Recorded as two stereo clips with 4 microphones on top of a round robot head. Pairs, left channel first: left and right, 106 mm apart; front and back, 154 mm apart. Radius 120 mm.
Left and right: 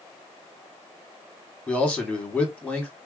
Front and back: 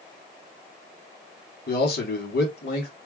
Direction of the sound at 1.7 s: 10° left.